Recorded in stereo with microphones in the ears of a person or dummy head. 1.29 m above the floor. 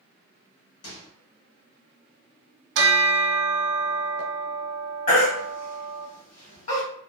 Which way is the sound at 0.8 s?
80° left.